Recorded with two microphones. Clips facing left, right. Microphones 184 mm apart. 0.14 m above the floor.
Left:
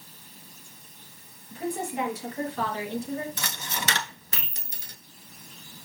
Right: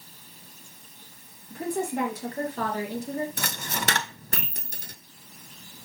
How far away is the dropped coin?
About 0.8 m.